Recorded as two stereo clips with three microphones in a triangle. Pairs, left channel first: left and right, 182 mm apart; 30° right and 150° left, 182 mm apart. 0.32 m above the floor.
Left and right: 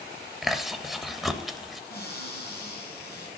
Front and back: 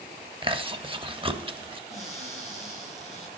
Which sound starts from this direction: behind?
Chewing, at 0.4 s.